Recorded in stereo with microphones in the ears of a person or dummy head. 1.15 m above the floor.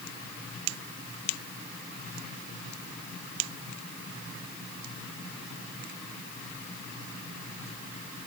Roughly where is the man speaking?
I don't hear a man speaking.